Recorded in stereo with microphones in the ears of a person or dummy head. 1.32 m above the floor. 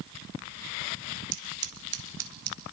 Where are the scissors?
60° right (ahead or behind), 2.5 m.